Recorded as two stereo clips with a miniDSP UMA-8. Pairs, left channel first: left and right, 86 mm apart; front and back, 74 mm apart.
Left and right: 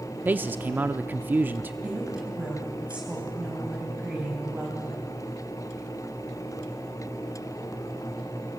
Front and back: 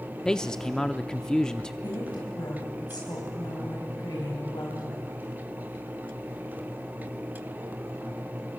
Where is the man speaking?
65° right, 0.6 m.